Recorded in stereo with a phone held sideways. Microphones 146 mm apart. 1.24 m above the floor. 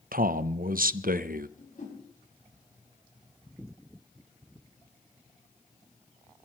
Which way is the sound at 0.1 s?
70° right (ahead or behind).